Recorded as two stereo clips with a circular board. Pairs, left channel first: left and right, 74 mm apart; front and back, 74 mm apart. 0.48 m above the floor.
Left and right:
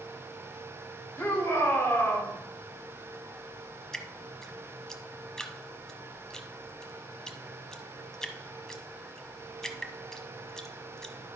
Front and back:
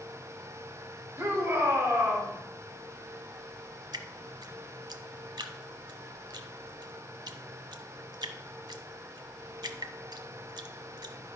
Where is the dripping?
170° left, 0.8 m.